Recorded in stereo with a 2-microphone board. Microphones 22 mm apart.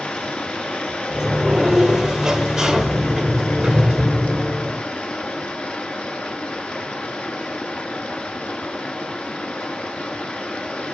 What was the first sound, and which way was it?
Running water, 75° left (ahead or behind).